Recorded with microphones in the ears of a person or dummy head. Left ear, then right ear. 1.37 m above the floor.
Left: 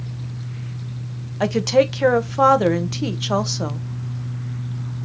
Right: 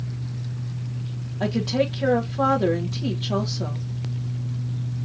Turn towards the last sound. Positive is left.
turn(degrees=65)  # may be behind; listen again after turning